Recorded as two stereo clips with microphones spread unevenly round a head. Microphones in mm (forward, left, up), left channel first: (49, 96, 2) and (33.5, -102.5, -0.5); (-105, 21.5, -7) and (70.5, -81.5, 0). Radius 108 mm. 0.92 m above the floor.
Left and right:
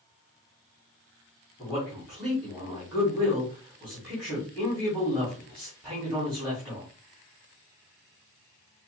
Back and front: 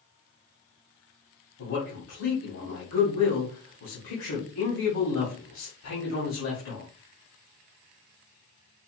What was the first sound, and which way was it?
A man speaking, 170° left.